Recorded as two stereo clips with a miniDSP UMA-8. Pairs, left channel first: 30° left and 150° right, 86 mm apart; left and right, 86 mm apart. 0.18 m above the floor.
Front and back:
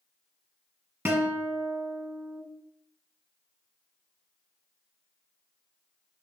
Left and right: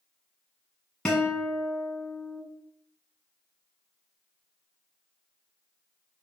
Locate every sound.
1.1 s a guitar: 165° left, 1.1 m